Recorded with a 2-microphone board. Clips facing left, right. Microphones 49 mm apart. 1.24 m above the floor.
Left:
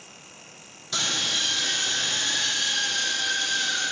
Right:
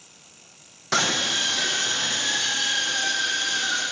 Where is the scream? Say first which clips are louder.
Right 5 dB; 80° right, 0.8 m; by 3.8 s 55° right (ahead or behind), 3 m.